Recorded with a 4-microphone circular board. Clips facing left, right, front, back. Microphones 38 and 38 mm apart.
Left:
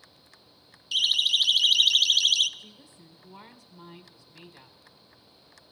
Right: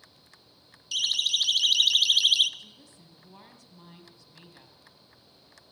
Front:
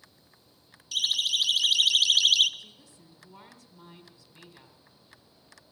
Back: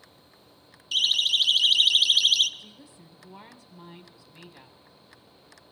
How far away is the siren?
About 2 m.